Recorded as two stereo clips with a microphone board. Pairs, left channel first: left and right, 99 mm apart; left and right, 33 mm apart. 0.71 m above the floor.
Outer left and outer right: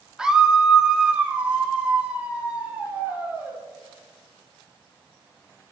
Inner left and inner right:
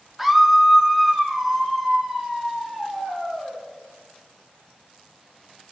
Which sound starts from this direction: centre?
A scream, at 0.2 s.